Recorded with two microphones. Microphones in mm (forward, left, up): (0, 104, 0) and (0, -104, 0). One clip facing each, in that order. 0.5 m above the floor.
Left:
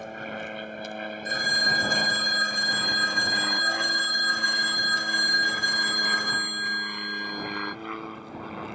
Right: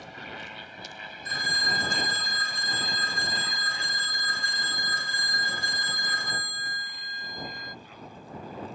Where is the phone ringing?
50° left (ahead or behind).